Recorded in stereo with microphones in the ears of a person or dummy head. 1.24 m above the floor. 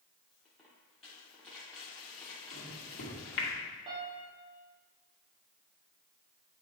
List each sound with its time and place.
0.3 s a dropped coin: 5° left (ahead or behind), 0.9 m
2.5 s a microwave: 70° left (ahead or behind), 2 m
3.9 s a piano: 35° right (ahead or behind), 1.1 m